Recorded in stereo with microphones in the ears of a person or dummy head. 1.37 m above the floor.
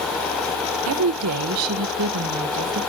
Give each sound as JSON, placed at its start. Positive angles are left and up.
{"t": 0.9, "sound": "a woman speaking", "side_deg": -75, "distance_m": 0.6}